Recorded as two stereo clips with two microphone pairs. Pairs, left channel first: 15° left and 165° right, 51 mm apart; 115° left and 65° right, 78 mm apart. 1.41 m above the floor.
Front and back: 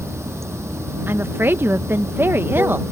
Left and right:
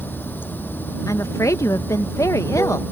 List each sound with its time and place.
0.0 s running water: straight behind
1.1 s a woman speaking: 160° left